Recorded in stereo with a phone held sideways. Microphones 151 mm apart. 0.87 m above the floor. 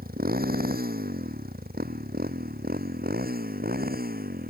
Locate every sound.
0.0 s a motorcycle: 80° right; by 4.5 s 85° right